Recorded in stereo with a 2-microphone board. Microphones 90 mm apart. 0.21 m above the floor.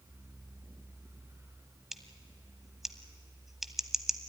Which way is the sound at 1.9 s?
5° right (ahead or behind).